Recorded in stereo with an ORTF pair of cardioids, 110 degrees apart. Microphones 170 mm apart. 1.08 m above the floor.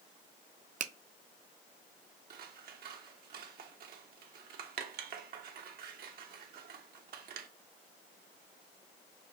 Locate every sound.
0.8 s a finger snap: 45° right, 0.5 m
2.3 s scissors: 55° right, 0.9 m